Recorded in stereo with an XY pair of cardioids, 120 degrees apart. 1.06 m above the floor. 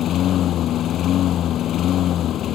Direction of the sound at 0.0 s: 60° left.